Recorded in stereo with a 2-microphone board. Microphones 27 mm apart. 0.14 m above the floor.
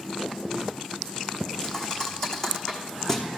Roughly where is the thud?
Centre.